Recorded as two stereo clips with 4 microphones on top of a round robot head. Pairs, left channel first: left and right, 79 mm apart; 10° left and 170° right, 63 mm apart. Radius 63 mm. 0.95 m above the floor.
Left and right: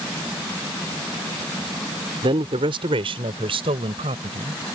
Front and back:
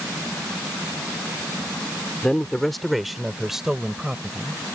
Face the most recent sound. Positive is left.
turn(degrees=-90)